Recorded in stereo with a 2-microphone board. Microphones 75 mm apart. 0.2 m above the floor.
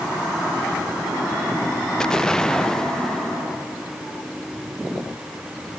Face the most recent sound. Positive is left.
turn(degrees=10)  # may be behind; listen again after turning